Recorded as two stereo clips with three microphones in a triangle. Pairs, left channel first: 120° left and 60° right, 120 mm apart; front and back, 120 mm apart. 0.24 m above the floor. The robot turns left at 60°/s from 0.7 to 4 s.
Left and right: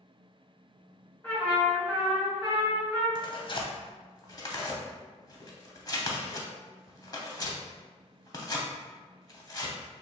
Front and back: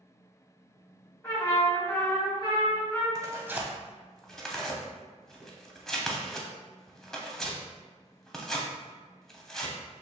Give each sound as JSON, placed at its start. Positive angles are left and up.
{"t": 1.2, "sound": "a trumpet", "azimuth_deg": 65, "distance_m": 1.4}
{"t": 3.1, "sound": "tearing paper", "azimuth_deg": 135, "distance_m": 0.5}